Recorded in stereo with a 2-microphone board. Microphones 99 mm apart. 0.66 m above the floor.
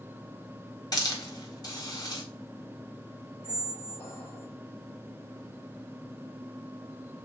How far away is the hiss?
About 1.2 m.